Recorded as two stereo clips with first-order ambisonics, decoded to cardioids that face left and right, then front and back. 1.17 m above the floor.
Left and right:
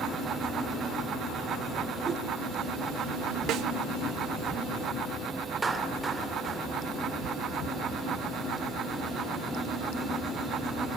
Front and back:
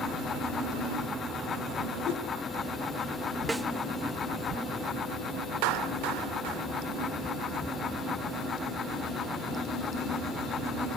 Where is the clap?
165° right, 3 m.